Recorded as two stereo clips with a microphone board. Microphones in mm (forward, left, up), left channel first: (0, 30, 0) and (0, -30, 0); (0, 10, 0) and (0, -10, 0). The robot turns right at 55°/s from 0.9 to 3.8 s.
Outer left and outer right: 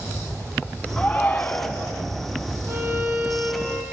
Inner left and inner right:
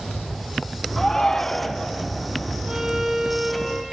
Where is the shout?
15° left (ahead or behind), 1.2 m; by 1.9 s 20° left (ahead or behind), 1.2 m.